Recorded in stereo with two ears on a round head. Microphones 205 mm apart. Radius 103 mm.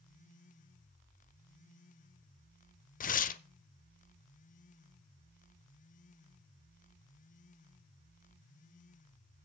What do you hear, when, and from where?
3.0 s tearing paper: 35° left (ahead or behind), 0.8 m